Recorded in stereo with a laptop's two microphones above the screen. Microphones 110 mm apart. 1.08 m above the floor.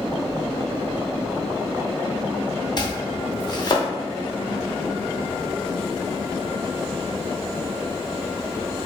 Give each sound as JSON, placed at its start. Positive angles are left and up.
{"t": 2.8, "sound": "chopping", "side_deg": 40, "distance_m": 0.7}